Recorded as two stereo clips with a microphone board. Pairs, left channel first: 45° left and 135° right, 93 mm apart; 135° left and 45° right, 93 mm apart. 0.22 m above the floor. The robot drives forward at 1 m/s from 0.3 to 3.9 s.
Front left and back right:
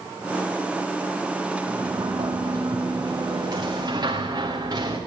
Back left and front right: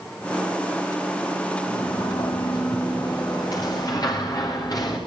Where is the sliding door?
175° right, 4.5 m; by 5.0 s straight behind, 6.5 m.